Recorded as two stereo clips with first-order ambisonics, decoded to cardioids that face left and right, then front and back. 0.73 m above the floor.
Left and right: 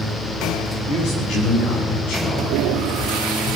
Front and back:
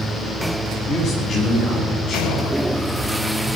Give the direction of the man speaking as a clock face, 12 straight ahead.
10 o'clock.